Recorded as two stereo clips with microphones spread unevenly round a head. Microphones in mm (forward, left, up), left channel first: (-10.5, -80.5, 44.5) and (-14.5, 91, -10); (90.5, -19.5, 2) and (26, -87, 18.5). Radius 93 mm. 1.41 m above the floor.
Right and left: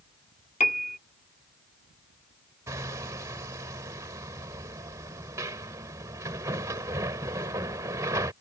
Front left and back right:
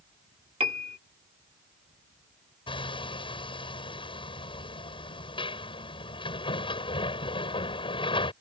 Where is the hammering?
15° left.